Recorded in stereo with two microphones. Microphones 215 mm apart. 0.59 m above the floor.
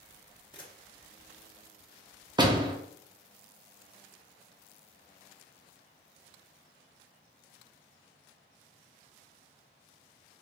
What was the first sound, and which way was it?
A camera shutter, 20° left (ahead or behind).